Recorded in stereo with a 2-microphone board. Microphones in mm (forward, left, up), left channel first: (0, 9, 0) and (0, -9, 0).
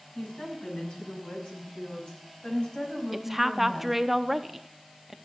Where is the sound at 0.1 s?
80° left, 5.5 m; by 4.0 s 55° left (ahead or behind), 4.5 m.